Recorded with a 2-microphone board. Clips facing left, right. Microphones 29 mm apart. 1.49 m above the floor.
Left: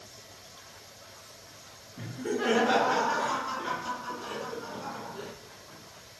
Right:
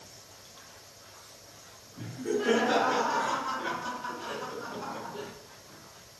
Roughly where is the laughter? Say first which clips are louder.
Even; left.